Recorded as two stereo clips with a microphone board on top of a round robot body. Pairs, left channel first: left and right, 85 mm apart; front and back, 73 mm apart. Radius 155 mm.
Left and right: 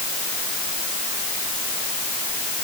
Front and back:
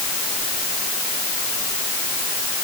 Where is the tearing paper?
I don't hear tearing paper.